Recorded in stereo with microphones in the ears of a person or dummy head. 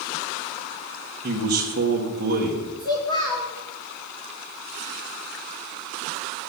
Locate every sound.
1.2 s a man speaking: 50° right (ahead or behind), 1.3 m
2.8 s a child speaking: 20° left (ahead or behind), 2.5 m